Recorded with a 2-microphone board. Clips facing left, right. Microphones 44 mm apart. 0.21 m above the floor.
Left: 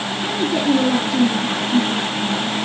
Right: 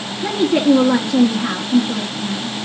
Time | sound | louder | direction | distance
0.2 | a woman speaking | right 5 dB | 55° right (ahead or behind) | 3 m